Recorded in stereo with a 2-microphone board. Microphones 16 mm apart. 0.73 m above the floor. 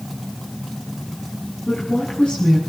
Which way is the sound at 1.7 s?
70° left (ahead or behind).